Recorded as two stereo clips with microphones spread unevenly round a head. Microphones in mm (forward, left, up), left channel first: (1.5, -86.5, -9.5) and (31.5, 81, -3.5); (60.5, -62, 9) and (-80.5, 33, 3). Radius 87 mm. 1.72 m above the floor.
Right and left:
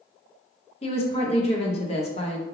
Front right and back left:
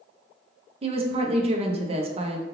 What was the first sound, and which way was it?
A woman speaking, 160° right.